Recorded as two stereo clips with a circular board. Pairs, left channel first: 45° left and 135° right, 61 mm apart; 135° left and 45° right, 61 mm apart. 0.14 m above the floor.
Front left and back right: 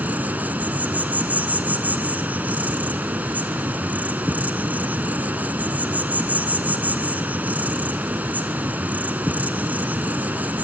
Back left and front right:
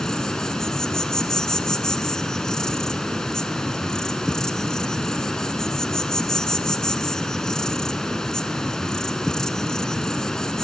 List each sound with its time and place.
0.0 s an insect: 155° right, 1.6 m